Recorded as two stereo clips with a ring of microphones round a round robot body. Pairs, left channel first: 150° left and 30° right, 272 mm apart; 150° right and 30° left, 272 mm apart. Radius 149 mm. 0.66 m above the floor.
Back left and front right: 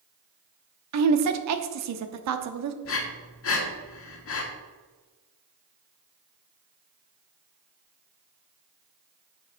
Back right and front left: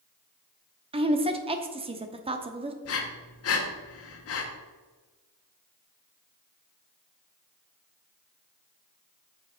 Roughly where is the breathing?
Behind.